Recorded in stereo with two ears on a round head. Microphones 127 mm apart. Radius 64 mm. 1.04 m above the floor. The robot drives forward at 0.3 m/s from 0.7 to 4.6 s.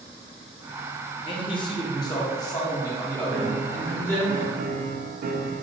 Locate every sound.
1.2 s a man speaking: 40° left (ahead or behind), 0.7 m; by 4.3 s 15° left (ahead or behind), 1.4 m
3.3 s a piano: 50° right (ahead or behind), 0.6 m; by 5.6 s 65° right (ahead or behind), 0.5 m